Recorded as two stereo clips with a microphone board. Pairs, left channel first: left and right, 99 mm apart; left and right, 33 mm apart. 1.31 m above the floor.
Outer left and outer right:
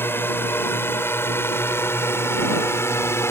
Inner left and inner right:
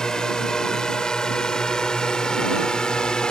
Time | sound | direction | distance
0.0 | a drone | 20° left (ahead or behind) | ?